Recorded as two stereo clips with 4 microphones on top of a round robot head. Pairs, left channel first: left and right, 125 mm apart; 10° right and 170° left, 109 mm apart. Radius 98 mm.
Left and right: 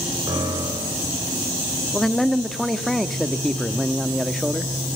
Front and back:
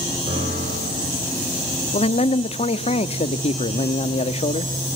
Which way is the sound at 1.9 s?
Straight ahead.